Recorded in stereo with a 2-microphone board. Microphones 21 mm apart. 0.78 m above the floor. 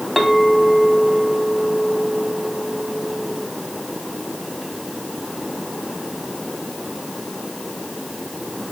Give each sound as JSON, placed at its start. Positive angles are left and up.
{"t": 0.2, "sound": "a clink", "side_deg": 5, "distance_m": 3.0}